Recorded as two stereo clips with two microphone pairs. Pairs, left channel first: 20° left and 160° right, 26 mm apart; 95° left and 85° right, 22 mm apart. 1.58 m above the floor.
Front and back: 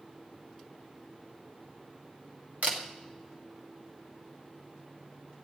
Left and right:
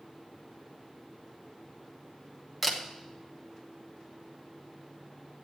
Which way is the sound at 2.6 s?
170° right.